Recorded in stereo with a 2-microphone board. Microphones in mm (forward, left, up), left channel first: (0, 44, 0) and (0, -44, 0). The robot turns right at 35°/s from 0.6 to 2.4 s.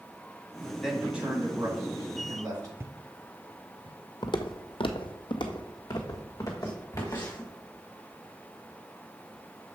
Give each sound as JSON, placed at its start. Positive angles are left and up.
{"t": 0.8, "sound": "a man speaking", "azimuth_deg": 180, "distance_m": 2.0}
{"t": 2.8, "sound": "footsteps", "side_deg": -30, "distance_m": 0.5}
{"t": 4.2, "sound": "footsteps", "side_deg": 55, "distance_m": 0.9}